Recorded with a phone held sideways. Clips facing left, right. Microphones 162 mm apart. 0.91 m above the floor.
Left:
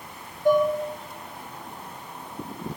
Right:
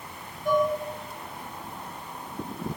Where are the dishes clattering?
85° left, 2.5 m.